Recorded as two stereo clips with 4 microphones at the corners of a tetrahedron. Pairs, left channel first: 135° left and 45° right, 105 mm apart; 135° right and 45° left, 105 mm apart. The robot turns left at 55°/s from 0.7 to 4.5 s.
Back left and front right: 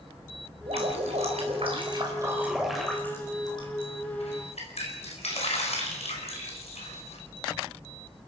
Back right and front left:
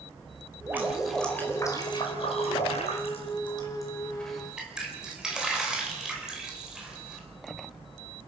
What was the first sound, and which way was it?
Dripping, 25° right.